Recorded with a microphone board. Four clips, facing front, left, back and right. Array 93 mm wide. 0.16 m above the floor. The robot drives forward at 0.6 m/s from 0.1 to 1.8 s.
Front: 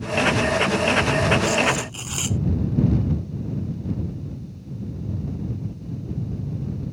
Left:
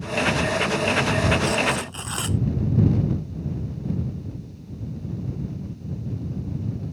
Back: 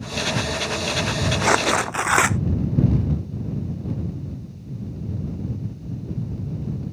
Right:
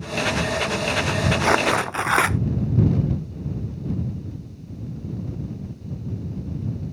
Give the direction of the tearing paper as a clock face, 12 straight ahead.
5 o'clock.